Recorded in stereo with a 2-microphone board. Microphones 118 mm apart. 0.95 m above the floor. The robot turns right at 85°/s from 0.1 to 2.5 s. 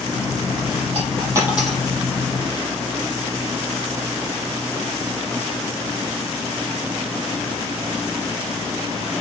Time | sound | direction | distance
0.9 | a dropped coin | 60° right (ahead or behind) | 3.5 m